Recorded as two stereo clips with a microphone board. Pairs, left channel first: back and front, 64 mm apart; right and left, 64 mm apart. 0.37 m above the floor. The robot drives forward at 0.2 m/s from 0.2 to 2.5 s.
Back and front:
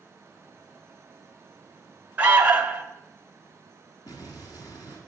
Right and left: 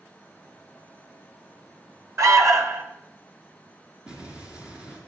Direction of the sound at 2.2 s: 60° left.